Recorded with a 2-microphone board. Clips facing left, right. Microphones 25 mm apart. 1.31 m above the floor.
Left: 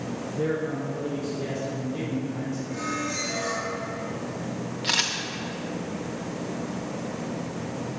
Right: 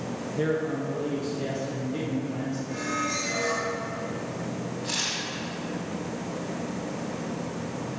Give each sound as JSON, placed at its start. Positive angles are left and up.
{"t": 0.3, "sound": "a man speaking", "side_deg": -75, "distance_m": 1.1}
{"t": 2.7, "sound": "a squeak", "side_deg": -40, "distance_m": 2.0}
{"t": 4.8, "sound": "a camera shutter", "side_deg": 60, "distance_m": 1.0}